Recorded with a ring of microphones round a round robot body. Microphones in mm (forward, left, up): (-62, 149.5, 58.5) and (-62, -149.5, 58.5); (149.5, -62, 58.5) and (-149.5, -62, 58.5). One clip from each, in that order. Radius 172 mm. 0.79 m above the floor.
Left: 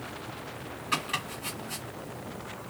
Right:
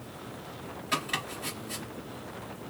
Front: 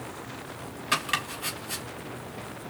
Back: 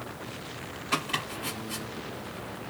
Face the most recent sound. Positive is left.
turn(degrees=-15)